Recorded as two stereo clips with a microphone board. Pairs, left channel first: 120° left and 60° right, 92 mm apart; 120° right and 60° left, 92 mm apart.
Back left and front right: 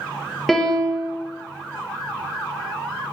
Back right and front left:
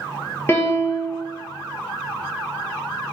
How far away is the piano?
About 0.6 m.